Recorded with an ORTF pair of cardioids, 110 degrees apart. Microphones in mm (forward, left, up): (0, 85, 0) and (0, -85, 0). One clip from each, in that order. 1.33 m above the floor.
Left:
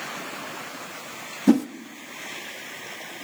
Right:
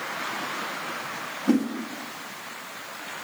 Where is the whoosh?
60° left, 0.8 m.